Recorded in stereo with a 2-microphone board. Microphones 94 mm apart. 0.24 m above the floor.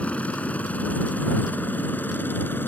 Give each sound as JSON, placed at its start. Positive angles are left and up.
{"t": 0.0, "sound": "a helicopter", "side_deg": 15}